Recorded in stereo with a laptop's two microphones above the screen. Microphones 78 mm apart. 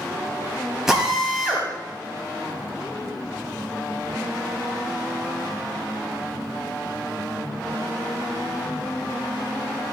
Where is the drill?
5° right (ahead or behind), 4 m.